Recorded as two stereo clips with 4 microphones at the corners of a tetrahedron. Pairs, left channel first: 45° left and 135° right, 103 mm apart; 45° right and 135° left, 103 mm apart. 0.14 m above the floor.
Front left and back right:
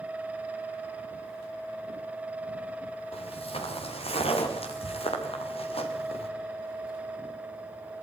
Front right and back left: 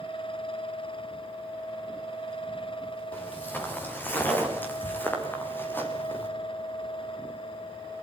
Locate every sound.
3.1 s footsteps: 25° left, 6.5 m